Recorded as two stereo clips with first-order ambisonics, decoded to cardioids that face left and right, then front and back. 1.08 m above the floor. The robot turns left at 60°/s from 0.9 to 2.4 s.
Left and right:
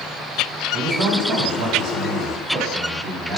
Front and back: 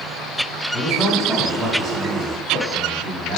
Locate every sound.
0.7 s a man speaking: 65° right, 3 m; by 3.4 s 155° right, 3 m